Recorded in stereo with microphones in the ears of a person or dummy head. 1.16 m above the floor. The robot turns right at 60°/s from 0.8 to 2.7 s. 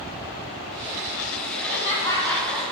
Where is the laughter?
120° left, 2.5 m; by 2.6 s 175° right, 2.5 m.